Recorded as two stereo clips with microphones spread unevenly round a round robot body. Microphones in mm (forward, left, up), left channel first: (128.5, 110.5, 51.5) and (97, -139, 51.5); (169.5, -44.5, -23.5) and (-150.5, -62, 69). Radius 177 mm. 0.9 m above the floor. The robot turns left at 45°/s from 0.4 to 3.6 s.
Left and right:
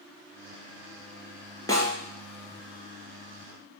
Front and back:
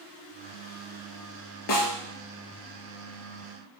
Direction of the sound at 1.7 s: 5° left.